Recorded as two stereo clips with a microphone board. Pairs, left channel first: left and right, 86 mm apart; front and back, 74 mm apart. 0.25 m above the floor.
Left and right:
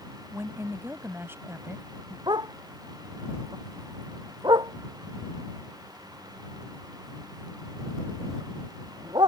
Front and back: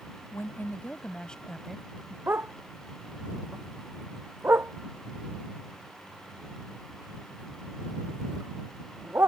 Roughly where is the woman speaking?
Ahead right.